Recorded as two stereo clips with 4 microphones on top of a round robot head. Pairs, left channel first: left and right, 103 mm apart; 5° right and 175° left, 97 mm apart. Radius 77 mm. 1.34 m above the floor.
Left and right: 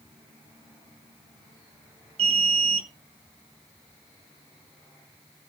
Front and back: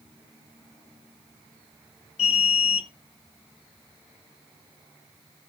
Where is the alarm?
45° right, 1.3 m.